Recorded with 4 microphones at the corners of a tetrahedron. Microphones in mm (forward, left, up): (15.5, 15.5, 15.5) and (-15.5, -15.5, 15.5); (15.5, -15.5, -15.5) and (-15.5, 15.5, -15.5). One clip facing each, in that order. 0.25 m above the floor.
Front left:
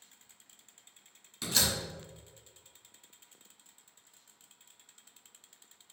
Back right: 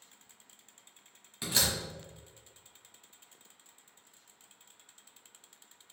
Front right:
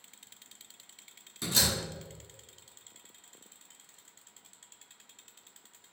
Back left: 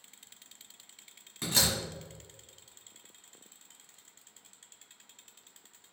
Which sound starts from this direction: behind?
A door slam, at 1.4 s.